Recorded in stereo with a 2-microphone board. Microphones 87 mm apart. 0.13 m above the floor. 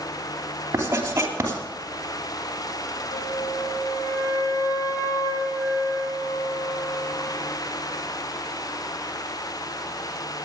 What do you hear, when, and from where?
0.7 s writing: 30° right (ahead or behind), 2.5 m
3.1 s a flute: 45° left (ahead or behind), 2.5 m